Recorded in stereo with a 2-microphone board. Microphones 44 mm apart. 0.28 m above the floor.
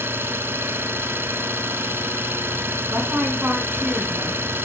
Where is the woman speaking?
60° right (ahead or behind), 2.5 m.